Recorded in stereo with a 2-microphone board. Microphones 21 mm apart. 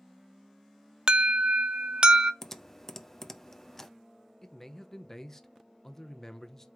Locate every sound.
1.1 s an alarm: 40° right (ahead or behind), 0.5 m
2.4 s typing on a keyboard: 25° left (ahead or behind), 0.5 m
4.4 s a man speaking: 20° left (ahead or behind), 0.8 m